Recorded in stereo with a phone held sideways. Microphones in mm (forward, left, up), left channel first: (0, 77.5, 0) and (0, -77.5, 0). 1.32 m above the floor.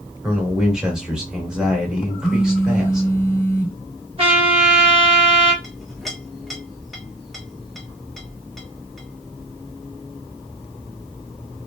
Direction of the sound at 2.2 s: Centre (ahead or behind).